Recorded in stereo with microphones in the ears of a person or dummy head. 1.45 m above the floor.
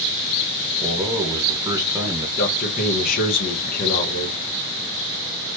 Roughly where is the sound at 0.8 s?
Centre.